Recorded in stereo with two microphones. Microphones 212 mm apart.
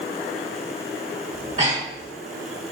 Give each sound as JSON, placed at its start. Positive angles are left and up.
{"t": 1.3, "sound": "breathing", "side_deg": -35, "distance_m": 0.9}